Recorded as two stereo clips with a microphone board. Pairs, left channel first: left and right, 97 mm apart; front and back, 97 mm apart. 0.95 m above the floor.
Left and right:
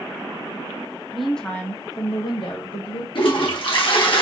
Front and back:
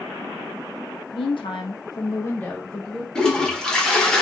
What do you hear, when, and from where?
1.1 s a woman speaking: 5° right, 1.0 m; by 3.0 s 85° left, 1.3 m
3.1 s a toilet flushing: 80° left, 0.9 m